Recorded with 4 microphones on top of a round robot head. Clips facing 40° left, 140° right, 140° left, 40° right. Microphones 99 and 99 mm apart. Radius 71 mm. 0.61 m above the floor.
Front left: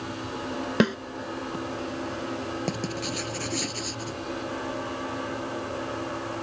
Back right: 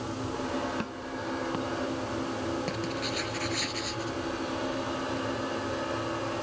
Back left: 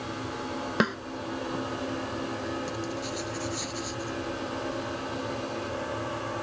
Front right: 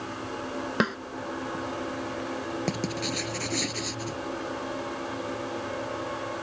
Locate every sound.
0.8 s a snare drum: 50° left
2.7 s writing: 20° right